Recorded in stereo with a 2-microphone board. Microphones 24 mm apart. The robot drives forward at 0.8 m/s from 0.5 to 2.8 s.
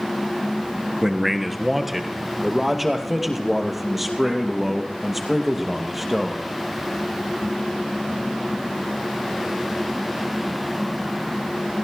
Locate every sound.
1.0 s a man speaking: 10° right (ahead or behind), 1.3 m; by 6.4 s 5° right (ahead or behind), 2.5 m